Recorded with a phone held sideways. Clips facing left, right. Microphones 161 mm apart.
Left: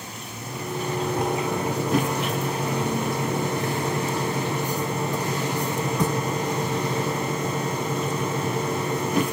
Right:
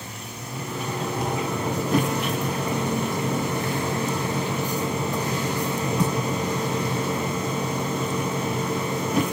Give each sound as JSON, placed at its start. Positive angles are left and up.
{"t": 0.4, "sound": "a microwave", "side_deg": 55, "distance_m": 4.5}